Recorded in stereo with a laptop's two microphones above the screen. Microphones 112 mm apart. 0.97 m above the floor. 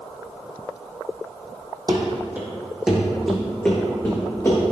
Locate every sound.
1.9 s running footsteps: 40° right (ahead or behind), 1.7 m; by 4.6 s 25° left (ahead or behind), 3.5 m